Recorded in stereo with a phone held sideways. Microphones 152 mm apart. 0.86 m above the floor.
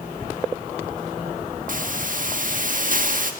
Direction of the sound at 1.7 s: 60° right (ahead or behind).